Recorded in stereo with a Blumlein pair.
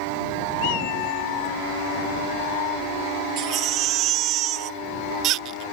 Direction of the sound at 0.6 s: 45° left.